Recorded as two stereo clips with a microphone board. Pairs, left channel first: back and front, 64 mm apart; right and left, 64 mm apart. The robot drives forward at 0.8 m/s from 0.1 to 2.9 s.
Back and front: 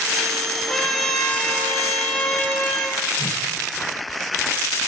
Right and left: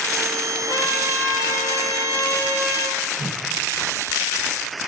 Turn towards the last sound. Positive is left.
turn(degrees=170)